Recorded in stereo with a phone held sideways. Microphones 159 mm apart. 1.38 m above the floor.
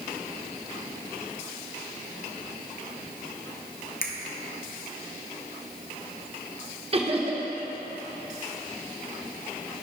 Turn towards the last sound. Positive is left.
turn(degrees=-35)  # may be behind; listen again after turning